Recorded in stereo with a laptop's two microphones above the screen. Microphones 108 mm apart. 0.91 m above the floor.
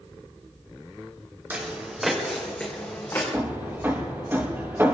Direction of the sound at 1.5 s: 20° right (ahead or behind).